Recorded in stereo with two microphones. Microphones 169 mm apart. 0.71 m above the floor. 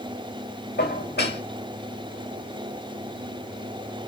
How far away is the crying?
I don't hear crying.